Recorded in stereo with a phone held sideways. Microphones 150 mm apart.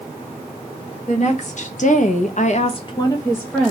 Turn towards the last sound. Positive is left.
turn(degrees=5)  # may be behind; listen again after turning